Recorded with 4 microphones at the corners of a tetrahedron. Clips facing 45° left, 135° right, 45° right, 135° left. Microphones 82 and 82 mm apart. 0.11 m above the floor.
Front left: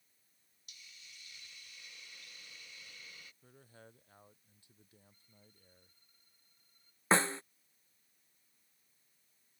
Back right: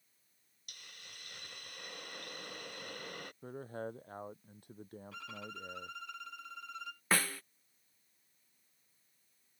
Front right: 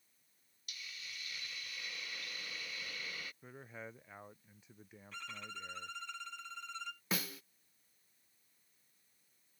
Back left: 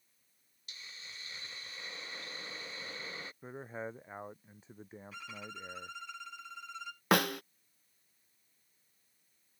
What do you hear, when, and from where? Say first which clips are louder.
0.7 s a hiss: back right 4 dB, front right 1 dB; 165° right
3.4 s a man speaking: back right 17 dB, back left 8 dB; 170° right
5.1 s a violin: back right 22 dB, even; 140° right
7.1 s a snare drum: front left 4 dB, back left 14 dB; 110° left